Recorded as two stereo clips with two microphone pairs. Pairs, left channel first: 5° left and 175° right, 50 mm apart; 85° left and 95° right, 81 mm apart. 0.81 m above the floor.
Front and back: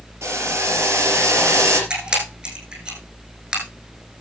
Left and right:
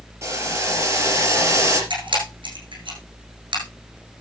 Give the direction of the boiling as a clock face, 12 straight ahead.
5 o'clock.